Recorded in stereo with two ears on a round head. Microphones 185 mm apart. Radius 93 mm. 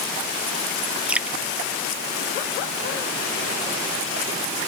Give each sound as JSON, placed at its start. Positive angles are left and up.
{"t": 1.1, "sound": "dripping", "side_deg": -5}